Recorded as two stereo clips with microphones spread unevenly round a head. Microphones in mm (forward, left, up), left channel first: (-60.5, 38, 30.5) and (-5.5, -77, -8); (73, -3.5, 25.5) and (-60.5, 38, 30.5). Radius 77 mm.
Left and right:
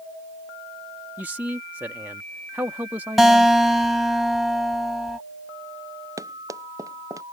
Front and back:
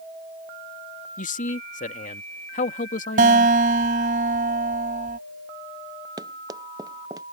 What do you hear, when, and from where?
1.2 s a man speaking: 10° left
3.2 s a guitar: 160° right
6.2 s running footsteps: 130° right